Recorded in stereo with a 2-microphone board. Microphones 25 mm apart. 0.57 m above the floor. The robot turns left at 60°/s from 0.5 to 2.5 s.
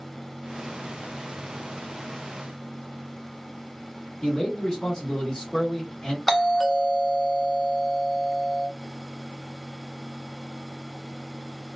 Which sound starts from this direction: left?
A man speaking, at 4.2 s.